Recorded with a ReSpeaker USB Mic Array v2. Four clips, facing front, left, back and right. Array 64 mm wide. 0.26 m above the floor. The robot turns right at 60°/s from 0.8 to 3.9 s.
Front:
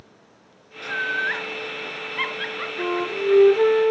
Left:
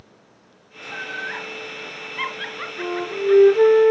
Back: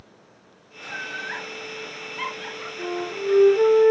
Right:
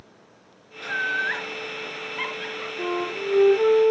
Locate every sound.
0.8 s laughter: 60° right, 4 m; by 3.8 s 120° left, 4 m
2.8 s a flute: 30° left, 4.5 m; by 3.9 s 100° left, 4.5 m